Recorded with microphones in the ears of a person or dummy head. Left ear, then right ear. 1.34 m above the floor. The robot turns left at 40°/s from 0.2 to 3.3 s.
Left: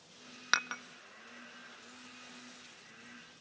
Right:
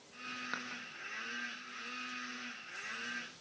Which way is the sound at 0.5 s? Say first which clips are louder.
Left 16 dB; 60° left (ahead or behind).